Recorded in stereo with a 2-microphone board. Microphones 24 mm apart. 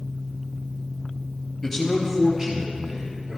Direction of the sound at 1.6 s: 25° left (ahead or behind).